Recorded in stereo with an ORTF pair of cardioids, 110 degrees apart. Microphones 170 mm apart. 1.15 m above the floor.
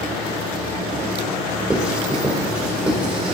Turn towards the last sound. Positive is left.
turn(degrees=-5)